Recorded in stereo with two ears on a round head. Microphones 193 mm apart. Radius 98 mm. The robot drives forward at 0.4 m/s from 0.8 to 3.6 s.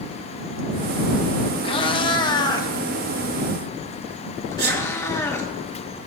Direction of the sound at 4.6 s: 50° right (ahead or behind).